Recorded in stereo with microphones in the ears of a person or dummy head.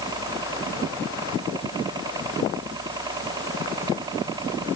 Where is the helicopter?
20° right (ahead or behind).